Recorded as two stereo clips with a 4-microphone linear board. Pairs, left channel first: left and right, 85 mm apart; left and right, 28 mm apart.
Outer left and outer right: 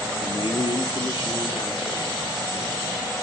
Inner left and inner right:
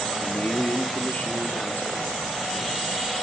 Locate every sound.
0.2 s a man speaking: 75° left (ahead or behind), 1.2 m